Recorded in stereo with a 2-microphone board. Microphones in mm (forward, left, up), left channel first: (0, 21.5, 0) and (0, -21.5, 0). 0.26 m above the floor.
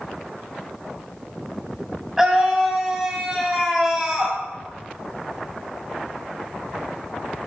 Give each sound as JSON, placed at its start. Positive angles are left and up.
{"t": 2.2, "sound": "a scream", "side_deg": -10, "distance_m": 1.9}